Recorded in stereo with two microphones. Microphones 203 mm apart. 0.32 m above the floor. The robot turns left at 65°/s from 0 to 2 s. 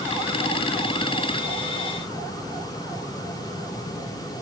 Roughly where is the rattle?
I don't hear a rattle.